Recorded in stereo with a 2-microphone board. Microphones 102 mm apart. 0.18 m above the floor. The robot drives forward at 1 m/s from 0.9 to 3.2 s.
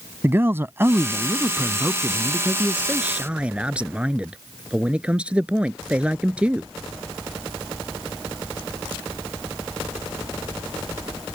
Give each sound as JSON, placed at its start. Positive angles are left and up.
{"t": 0.2, "sound": "a man speaking", "side_deg": -25}